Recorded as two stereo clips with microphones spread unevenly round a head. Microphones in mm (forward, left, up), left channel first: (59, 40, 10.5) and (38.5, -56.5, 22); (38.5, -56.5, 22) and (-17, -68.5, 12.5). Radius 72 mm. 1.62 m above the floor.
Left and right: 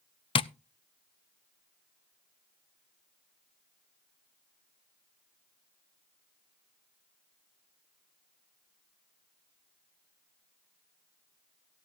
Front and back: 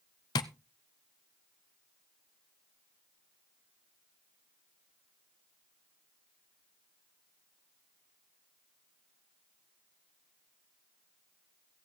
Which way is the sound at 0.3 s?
45° left.